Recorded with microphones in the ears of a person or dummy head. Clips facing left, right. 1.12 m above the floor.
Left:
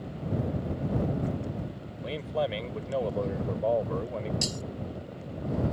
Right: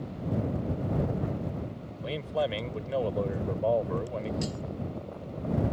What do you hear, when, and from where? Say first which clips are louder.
2.0 s a man speaking: even; centre (ahead or behind)
4.4 s breaking glass: right 1 dB; 65° left (ahead or behind)